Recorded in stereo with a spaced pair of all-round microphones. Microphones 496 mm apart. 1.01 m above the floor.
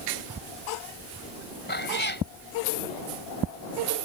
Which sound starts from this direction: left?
A cat meowing, at 1.7 s.